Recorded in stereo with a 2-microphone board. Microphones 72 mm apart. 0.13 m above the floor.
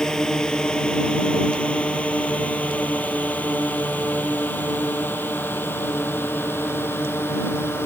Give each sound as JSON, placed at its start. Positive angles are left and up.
{"t": 0.0, "sound": "a drone", "side_deg": 10}